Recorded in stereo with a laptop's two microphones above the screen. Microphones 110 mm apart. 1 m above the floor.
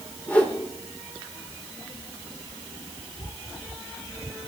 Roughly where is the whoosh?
Centre.